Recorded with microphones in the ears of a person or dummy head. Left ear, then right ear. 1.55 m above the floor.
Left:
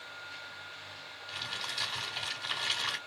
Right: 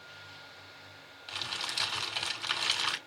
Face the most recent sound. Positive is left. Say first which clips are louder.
# right 2 dB
turn(degrees=-45)  # may be behind; listen again after turning